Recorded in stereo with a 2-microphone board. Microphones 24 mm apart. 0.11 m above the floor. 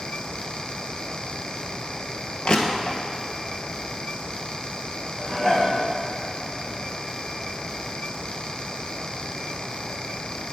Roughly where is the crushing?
Left.